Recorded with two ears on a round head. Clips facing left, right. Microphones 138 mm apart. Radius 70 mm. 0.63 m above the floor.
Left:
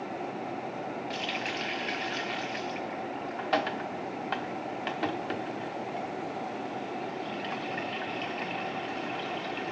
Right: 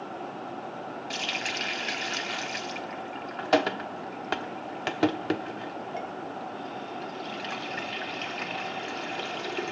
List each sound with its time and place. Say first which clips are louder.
1.1 s a running tap: left 1 dB; 50° right (ahead or behind), 0.9 m